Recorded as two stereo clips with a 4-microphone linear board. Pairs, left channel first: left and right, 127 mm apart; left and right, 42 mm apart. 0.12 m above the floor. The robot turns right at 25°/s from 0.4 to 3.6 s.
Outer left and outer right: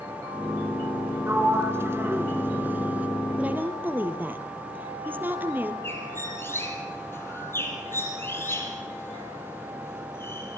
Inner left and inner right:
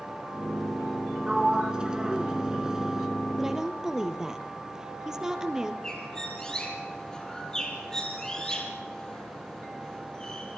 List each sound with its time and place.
1.3 s a sliding door: 20° right (ahead or behind), 1.5 m; by 3.1 s 10° right (ahead or behind), 1.5 m
3.4 s a woman speaking: 10° right (ahead or behind), 3 m; by 5.7 s 15° right (ahead or behind), 3 m
5.8 s a bird: 20° left (ahead or behind), 4 m